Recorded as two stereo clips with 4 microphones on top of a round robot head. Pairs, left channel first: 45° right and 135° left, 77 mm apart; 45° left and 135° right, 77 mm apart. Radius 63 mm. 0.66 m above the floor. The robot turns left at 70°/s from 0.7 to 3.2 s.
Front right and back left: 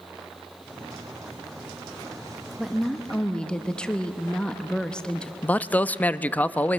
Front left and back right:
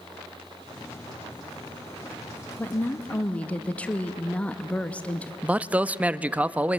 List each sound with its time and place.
2.6 s a woman speaking: 55° left, 0.9 m; by 5.3 s 10° left, 0.9 m
5.4 s a man speaking: 85° right, 0.6 m